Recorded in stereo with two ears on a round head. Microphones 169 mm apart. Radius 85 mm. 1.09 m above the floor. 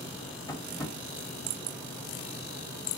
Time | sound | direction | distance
0.5 | tapping | 20° left (ahead or behind) | 1.4 m